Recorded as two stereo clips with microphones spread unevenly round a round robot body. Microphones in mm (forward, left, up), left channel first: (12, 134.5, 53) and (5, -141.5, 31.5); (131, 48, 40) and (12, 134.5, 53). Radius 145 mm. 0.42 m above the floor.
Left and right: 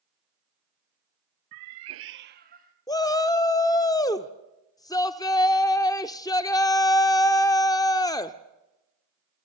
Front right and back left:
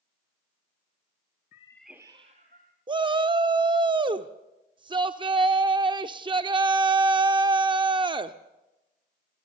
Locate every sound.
1.5 s a cat meowing: 90° right, 0.5 m; by 2.8 s 155° right, 1.7 m
2.9 s a shout: 160° left, 0.8 m